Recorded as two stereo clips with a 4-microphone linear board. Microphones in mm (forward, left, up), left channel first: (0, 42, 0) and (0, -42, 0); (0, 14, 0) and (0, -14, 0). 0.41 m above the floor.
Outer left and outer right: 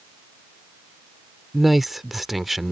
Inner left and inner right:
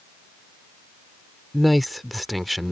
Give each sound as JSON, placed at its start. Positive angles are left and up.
{"t": 1.5, "sound": "a man speaking", "side_deg": 0}